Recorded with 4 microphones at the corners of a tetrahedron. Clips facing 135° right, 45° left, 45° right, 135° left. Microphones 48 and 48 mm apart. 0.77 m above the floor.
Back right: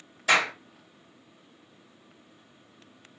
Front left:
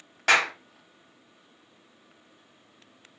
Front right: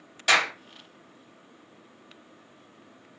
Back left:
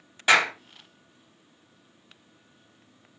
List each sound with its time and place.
0.3 s a clap: 60° left, 1.1 m